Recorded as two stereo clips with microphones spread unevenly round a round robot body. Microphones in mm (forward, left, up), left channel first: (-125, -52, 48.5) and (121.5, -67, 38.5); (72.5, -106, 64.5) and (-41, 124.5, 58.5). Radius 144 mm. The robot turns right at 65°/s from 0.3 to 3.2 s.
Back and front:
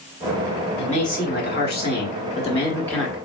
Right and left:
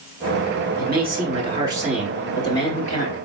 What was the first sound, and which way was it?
A man speaking, 120° left.